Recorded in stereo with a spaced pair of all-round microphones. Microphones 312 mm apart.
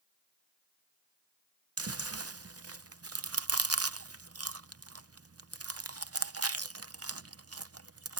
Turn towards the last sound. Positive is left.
turn(degrees=-50)  # may be behind; listen again after turning